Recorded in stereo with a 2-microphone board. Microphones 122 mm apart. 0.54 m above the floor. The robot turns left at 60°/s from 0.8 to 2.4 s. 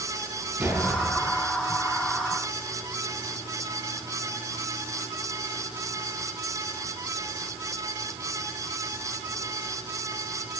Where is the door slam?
165° right, 7.5 m; by 1.4 s 160° left, 7.5 m.